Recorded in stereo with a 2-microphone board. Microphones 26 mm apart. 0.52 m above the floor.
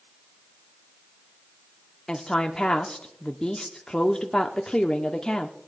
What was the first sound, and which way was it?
A woman speaking, 20° left (ahead or behind).